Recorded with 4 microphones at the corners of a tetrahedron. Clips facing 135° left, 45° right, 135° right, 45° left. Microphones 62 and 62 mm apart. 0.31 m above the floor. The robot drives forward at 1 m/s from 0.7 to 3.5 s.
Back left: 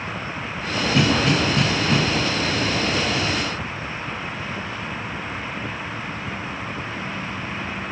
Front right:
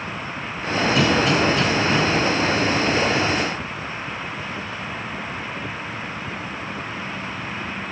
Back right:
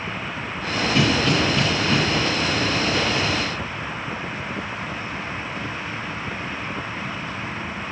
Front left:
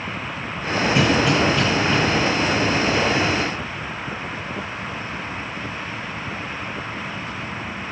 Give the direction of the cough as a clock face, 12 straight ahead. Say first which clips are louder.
Even, front left 1 dB; 9 o'clock.